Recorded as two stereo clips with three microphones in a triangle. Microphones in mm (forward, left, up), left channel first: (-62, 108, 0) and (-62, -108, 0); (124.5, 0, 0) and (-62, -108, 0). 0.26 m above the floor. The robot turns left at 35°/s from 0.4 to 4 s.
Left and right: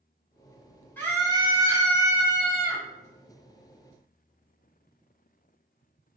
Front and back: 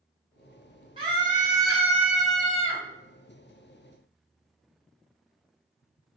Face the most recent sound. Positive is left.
turn(degrees=60)